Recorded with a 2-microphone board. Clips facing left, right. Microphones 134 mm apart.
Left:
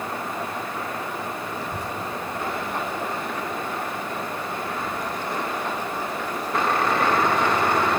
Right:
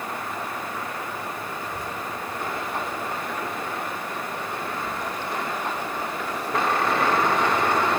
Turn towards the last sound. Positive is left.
turn(degrees=40)  # may be behind; listen again after turning